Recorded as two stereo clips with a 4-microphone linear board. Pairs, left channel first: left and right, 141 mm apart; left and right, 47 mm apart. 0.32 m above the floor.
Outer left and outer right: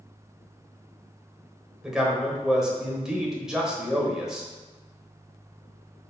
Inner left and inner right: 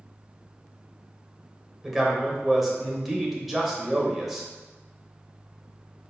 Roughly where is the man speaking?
Centre.